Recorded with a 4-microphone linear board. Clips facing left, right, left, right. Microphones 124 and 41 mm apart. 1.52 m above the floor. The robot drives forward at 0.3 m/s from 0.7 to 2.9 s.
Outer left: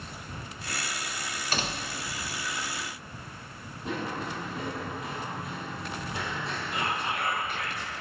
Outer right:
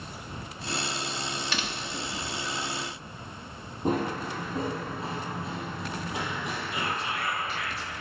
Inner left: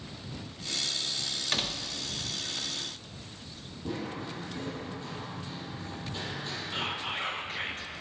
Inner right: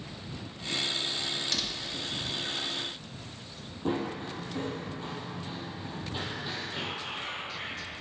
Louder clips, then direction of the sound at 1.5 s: Outer left 1 dB, inner left 1 dB; 40° left (ahead or behind).